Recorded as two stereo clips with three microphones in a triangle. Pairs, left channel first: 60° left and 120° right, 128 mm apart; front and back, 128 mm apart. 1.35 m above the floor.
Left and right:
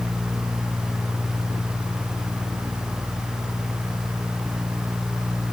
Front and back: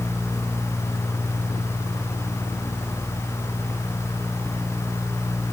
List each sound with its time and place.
Only background noise.